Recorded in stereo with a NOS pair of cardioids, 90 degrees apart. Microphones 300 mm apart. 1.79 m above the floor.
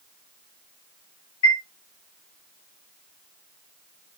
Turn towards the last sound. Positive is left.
turn(degrees=65)